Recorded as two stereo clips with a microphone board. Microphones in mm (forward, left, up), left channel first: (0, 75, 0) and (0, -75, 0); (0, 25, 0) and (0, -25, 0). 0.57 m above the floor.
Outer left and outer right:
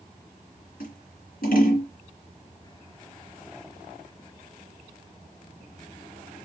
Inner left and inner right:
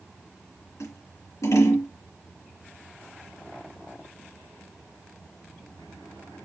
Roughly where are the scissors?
Left.